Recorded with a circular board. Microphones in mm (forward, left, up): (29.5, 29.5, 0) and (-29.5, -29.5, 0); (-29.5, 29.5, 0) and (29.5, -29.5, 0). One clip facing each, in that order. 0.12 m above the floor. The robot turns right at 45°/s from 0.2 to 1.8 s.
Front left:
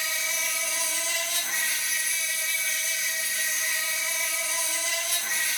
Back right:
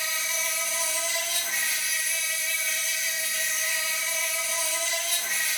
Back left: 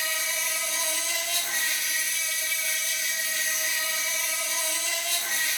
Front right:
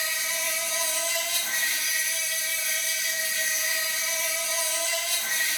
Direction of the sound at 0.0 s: 110° right.